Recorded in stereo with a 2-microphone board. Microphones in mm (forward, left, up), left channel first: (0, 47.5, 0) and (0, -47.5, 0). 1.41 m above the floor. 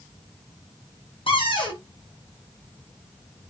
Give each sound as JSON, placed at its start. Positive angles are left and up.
{"t": 1.3, "sound": "a cupboard door", "side_deg": 65, "distance_m": 1.0}